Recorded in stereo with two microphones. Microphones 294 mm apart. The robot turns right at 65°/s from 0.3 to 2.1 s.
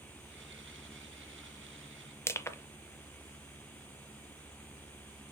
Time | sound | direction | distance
2.3 | crushing | 10° left (ahead or behind) | 0.6 m